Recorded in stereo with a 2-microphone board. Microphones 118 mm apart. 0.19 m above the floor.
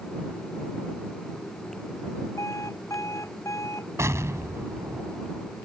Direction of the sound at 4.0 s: 25° right (ahead or behind).